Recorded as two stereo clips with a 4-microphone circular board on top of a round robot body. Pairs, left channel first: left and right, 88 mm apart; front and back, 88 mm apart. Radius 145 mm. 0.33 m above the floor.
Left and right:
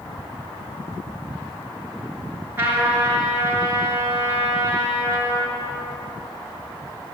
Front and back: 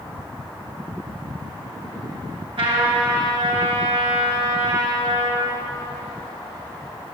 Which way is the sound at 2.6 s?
155° right.